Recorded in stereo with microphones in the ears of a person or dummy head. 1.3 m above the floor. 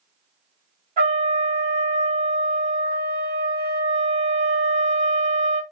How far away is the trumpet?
About 3.5 m.